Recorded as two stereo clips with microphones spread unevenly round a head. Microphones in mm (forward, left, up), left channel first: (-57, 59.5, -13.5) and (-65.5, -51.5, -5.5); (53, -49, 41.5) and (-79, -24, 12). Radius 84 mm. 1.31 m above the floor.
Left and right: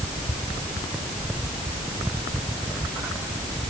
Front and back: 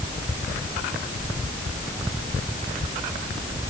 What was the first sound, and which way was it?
Only background noise.